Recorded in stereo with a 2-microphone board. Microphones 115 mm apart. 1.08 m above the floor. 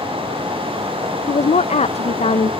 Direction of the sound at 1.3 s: 85° left.